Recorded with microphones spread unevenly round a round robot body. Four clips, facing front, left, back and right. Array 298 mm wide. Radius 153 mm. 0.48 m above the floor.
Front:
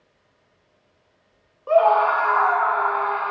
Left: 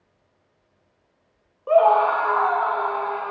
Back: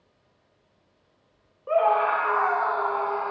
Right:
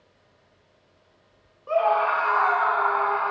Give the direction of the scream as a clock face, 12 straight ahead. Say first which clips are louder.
Left 5 dB, front 5 dB; 10 o'clock.